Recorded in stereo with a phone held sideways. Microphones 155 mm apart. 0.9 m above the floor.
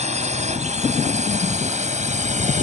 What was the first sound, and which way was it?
A drone, 45° right (ahead or behind).